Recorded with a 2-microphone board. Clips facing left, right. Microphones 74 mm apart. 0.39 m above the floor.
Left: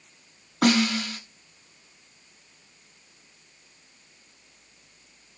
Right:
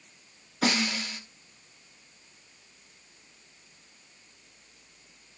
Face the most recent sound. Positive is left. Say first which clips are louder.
# left 6 dB
turn(degrees=65)  # may be behind; listen again after turning